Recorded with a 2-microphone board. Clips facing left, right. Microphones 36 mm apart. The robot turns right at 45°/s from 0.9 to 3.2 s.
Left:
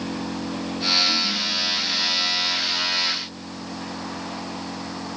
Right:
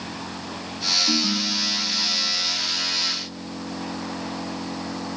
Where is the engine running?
90° left; by 5.2 s 165° right.